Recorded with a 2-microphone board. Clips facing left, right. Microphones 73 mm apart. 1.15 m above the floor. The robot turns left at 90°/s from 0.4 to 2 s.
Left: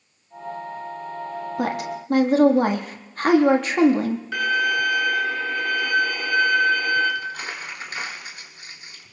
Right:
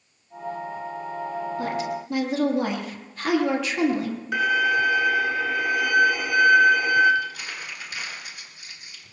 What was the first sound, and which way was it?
A woman speaking, 85° left.